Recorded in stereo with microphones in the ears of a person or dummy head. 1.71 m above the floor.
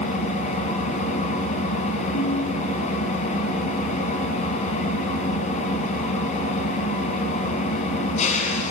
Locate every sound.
0.0 s an engine running: 40° left (ahead or behind), 6.5 m
2.1 s a piano: 85° left, 3.5 m